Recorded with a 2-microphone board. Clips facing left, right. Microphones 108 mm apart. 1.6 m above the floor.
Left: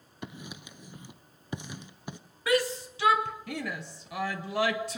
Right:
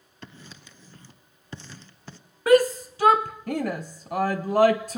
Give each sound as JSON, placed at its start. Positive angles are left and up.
{"t": 0.2, "sound": "writing", "side_deg": 15, "distance_m": 1.1}
{"t": 2.5, "sound": "a shout", "side_deg": -45, "distance_m": 0.7}